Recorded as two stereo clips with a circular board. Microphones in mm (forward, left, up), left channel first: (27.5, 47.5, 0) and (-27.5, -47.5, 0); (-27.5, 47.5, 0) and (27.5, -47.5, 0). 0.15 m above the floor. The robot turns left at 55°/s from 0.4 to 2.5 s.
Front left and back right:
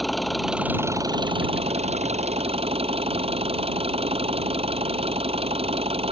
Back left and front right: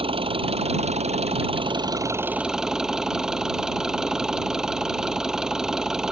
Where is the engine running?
30° right; by 6.1 s 145° right.